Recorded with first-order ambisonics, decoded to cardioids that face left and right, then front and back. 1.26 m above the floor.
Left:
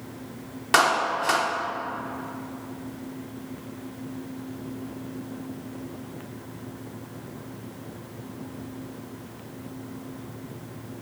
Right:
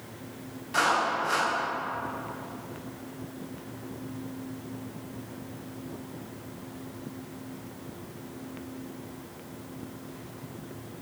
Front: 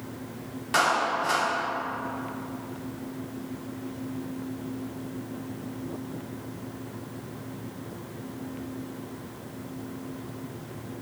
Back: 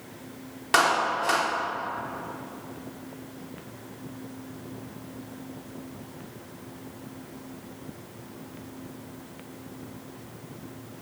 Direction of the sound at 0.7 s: 115° left.